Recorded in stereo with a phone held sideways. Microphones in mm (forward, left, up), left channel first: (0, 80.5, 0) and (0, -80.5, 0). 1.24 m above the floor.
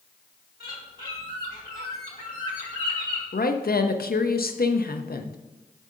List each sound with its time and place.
0.6 s a bird: 65° left (ahead or behind), 2 m
3.3 s a woman speaking: 70° left (ahead or behind), 0.6 m